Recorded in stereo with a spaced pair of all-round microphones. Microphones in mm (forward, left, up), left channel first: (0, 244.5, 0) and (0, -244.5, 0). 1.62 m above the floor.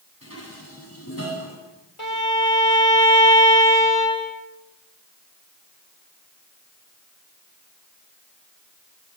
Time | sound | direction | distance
0.2 | dishes clattering | 30° left (ahead or behind) | 10 m
2.0 | a violin | 80° left | 9 m